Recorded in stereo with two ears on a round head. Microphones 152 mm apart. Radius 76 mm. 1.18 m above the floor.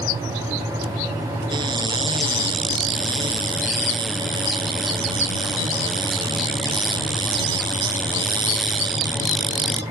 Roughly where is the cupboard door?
Right.